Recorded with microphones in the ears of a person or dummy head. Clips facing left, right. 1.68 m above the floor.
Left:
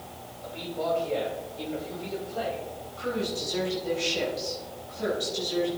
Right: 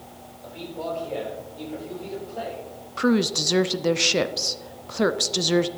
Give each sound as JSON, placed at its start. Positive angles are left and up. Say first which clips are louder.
{"t": 0.4, "sound": "a man speaking", "louder": "left 2 dB", "side_deg": -10, "distance_m": 5.0}
{"t": 3.0, "sound": "a woman speaking", "louder": "right 9 dB", "side_deg": -75, "distance_m": 0.6}